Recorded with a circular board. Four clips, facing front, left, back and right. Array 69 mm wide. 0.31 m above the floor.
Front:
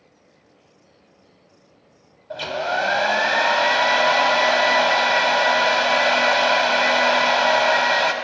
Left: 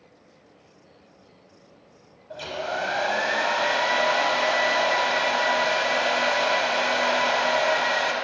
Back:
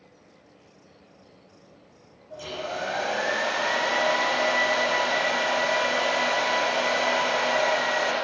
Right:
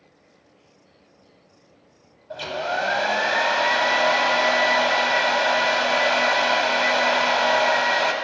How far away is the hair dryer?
About 0.5 m.